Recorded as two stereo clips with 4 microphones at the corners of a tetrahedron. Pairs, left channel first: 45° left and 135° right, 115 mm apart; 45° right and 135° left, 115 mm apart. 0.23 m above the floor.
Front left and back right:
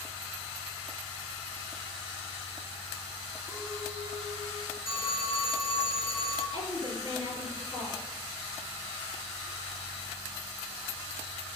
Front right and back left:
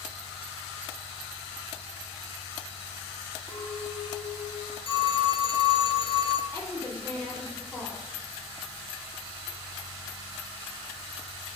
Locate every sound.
3.5 s a clink: 25° left, 4 m
4.8 s a phone ringing: 80° right, 2.5 m
6.5 s a woman speaking: 20° left, 5 m